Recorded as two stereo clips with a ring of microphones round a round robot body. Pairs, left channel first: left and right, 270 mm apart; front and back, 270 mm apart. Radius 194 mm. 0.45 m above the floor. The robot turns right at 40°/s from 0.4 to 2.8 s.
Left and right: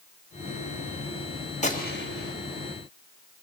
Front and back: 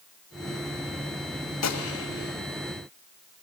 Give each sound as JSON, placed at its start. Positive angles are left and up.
{"t": 1.6, "sound": "a gunshot", "azimuth_deg": 25, "distance_m": 2.5}